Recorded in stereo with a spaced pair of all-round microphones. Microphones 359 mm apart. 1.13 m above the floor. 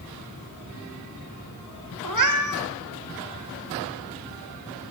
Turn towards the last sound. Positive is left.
turn(degrees=-55)  # may be behind; listen again after turning